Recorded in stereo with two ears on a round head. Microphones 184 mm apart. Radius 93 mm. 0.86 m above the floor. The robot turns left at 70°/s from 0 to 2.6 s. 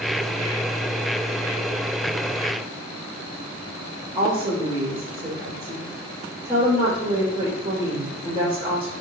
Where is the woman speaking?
15° right (ahead or behind), 3.5 m.